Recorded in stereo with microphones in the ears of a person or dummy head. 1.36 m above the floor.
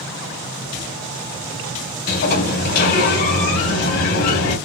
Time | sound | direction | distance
2.1 | a sliding door | 55° left (ahead or behind) | 2.5 m